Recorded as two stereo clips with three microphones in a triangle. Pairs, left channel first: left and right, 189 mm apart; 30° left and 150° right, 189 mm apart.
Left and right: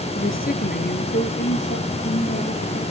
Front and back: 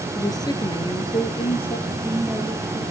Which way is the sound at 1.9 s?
120° left.